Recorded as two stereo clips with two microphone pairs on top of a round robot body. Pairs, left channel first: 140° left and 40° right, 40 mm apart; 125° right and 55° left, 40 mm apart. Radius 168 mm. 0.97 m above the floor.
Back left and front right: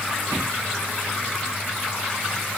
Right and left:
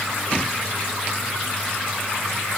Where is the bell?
No bell in this recording.